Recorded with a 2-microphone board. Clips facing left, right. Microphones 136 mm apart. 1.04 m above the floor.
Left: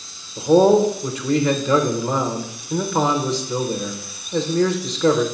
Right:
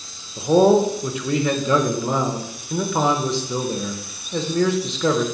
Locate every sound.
0.4 s a man speaking: centre (ahead or behind), 0.7 m